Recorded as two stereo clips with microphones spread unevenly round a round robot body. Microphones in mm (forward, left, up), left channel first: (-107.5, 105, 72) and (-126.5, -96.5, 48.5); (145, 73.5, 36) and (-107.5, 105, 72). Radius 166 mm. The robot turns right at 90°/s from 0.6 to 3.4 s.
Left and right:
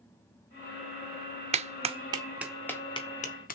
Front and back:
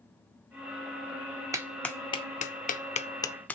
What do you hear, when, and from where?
1.5 s a clap: 105° right, 0.5 m; by 3.5 s 60° left, 0.5 m